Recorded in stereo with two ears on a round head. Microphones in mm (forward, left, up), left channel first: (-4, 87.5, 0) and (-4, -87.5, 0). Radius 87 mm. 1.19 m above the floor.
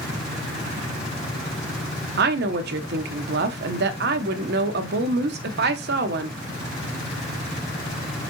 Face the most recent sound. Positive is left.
turn(degrees=-55)  # may be behind; listen again after turning